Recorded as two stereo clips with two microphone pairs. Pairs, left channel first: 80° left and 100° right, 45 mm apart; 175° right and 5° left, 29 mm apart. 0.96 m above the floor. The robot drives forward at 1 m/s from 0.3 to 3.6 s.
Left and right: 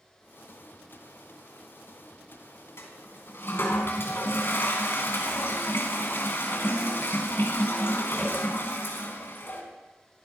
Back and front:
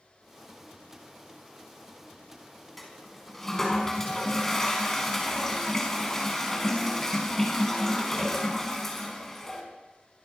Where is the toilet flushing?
100° left, 5 m; by 9.6 s 110° left, 5 m.